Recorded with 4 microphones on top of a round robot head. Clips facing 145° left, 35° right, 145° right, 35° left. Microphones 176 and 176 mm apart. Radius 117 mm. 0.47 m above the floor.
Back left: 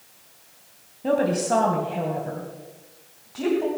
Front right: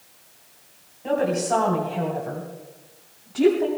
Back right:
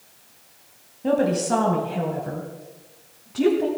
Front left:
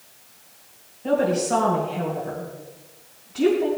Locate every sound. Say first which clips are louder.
1.0 s a woman speaking: back left 1 dB, even; 170° right, 3.5 m; by 3.7 s 105° right, 4 m